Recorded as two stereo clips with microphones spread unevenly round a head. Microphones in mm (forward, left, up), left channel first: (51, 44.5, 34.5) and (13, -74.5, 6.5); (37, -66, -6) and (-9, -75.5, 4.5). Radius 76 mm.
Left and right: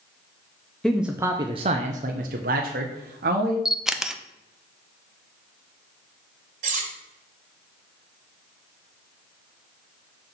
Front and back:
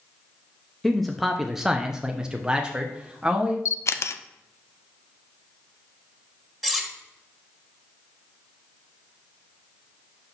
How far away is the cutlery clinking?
About 2.5 m.